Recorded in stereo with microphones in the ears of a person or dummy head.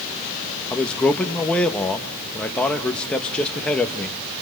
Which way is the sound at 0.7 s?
10° left (ahead or behind).